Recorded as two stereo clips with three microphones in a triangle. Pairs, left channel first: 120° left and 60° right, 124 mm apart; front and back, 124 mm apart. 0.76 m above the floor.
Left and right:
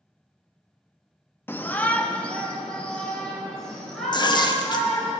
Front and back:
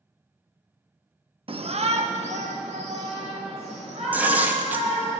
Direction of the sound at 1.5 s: 175° right.